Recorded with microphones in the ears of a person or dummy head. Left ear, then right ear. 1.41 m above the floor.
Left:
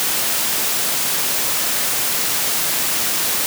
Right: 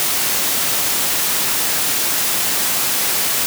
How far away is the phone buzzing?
No phone buzzing in this recording.